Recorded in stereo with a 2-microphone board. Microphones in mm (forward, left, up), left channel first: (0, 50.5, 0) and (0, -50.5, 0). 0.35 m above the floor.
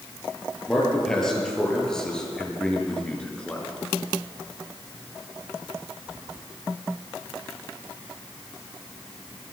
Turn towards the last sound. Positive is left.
turn(degrees=10)  # may be behind; listen again after turning